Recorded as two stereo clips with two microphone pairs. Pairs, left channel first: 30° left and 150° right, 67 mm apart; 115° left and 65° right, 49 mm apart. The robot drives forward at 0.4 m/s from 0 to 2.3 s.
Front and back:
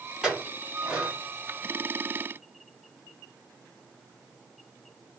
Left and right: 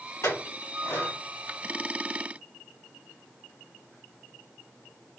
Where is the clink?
130° left, 1.6 m; by 1.1 s 135° left, 1.9 m.